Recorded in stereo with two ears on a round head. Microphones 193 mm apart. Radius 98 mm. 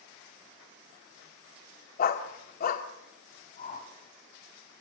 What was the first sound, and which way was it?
A dog barking, 45° left (ahead or behind).